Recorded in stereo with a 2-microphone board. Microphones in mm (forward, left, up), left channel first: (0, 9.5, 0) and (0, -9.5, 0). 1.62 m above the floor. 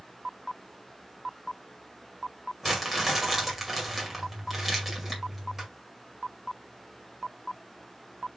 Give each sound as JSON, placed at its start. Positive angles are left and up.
{"t": 2.6, "sound": "crumpling", "side_deg": -10, "distance_m": 2.0}